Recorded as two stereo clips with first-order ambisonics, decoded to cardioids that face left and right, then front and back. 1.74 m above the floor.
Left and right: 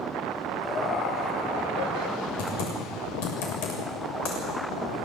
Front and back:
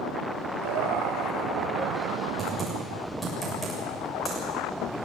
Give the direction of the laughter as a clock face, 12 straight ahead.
6 o'clock.